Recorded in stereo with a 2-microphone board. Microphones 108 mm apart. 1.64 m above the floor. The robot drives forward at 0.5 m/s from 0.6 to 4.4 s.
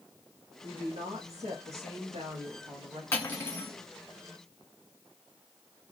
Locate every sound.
0.6 s a woman speaking: 70° right (ahead or behind), 1.4 m; by 3.0 s 60° right (ahead or behind), 1.5 m
3.1 s cutlery clinking: 20° left (ahead or behind), 1.6 m; by 3.7 s 15° left (ahead or behind), 1.8 m